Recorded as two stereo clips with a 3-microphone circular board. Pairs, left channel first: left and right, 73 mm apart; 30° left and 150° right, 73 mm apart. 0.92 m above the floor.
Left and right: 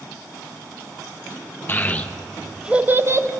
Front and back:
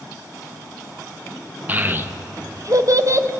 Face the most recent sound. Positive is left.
turn(degrees=-115)